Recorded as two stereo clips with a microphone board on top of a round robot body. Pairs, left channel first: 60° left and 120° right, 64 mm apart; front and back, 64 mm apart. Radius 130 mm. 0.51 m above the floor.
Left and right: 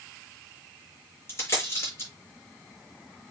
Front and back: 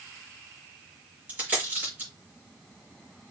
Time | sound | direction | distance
1.3 | a dropped coin | 115° left | 6 m